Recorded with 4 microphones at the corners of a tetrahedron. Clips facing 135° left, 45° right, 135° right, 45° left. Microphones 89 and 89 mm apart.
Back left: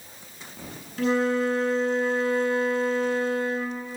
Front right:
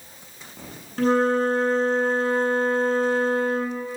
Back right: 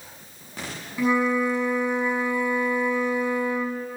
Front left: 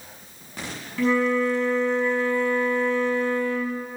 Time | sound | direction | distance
1.0 | a flute | 65° right | 1.2 m